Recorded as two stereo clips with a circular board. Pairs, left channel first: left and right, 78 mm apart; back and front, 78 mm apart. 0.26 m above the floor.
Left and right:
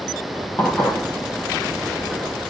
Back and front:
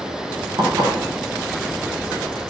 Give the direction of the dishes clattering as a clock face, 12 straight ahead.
11 o'clock.